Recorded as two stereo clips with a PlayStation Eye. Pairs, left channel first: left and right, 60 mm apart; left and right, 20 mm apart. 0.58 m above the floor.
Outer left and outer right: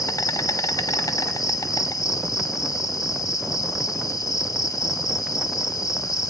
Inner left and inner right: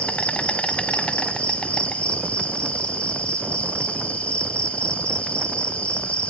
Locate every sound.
0.0 s an insect: 85° left, 1.0 m